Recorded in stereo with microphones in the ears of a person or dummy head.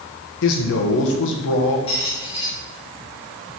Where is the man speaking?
65° left (ahead or behind), 1.1 m.